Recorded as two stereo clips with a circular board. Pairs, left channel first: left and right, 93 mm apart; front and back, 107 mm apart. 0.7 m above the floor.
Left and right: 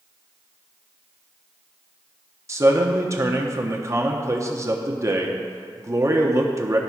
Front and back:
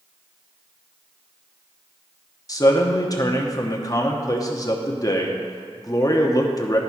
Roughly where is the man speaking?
Ahead right.